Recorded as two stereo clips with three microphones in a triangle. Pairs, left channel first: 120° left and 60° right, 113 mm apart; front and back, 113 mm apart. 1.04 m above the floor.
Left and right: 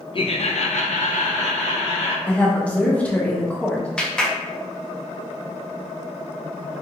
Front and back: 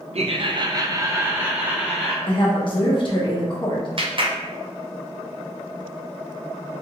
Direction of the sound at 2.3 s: 40° left.